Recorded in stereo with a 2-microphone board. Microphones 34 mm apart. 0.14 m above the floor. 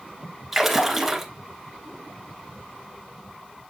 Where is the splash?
5° right (ahead or behind), 1.6 m.